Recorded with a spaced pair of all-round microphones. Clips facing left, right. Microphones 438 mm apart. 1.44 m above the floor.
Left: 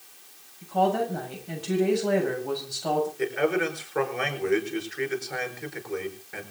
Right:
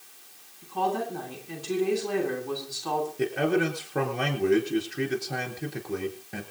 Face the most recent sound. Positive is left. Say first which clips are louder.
# right 5 dB
turn(degrees=-50)  # may be behind; listen again after turning